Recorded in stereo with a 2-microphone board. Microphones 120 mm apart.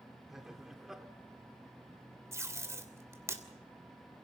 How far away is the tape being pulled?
About 2.5 m.